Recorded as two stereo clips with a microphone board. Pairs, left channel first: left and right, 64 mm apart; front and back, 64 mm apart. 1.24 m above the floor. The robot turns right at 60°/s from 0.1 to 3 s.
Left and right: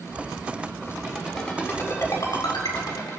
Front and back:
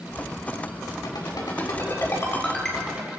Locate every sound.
1.0 s a ringtone: 20° right, 7.5 m; by 3.1 s 95° left, 7.5 m